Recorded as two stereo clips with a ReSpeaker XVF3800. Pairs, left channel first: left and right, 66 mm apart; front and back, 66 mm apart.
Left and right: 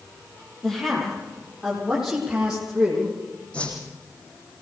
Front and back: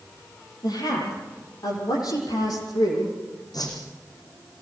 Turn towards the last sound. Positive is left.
turn(degrees=20)